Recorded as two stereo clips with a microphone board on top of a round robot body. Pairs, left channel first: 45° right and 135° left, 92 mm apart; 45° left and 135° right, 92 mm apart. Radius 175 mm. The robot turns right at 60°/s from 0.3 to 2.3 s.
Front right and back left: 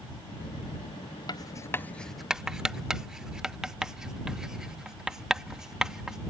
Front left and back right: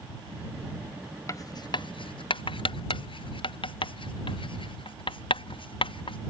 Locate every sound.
1.3 s writing: 10° right; by 6.2 s 55° left